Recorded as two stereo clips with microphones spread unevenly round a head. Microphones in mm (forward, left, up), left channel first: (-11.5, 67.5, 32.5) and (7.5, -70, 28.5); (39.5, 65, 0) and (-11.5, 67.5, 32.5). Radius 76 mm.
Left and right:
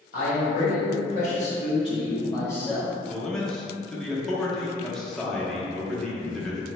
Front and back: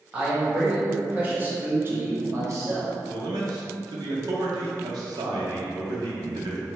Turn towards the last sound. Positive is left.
turn(degrees=-175)